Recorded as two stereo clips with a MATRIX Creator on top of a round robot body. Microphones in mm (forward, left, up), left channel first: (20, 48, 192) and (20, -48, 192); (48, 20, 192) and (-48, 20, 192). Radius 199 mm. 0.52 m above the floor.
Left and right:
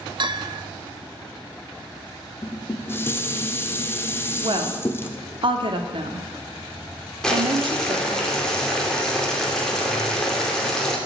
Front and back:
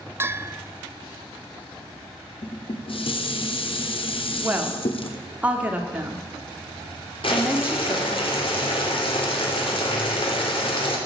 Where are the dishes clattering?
25° left, 1.1 m.